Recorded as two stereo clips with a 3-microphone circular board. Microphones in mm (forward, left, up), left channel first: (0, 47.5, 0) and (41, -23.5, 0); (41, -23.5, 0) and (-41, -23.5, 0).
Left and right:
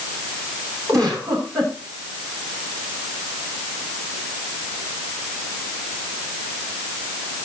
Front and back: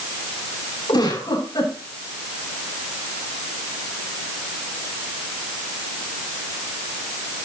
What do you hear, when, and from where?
0.9 s a giggle: 15° right, 9 m